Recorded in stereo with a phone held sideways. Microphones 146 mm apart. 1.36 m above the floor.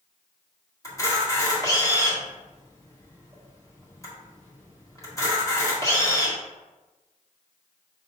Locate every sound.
0.8 s a camera shutter: 25° left (ahead or behind), 1.5 m